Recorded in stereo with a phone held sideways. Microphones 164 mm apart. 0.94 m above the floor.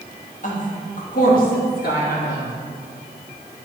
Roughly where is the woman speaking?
Left.